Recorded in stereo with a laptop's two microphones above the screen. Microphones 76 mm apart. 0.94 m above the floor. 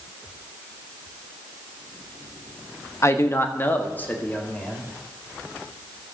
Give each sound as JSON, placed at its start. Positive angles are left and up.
{"t": 3.0, "sound": "a man speaking", "side_deg": 40, "distance_m": 1.1}